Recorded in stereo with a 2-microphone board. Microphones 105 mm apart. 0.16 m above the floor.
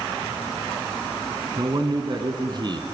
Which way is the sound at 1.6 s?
45° right (ahead or behind).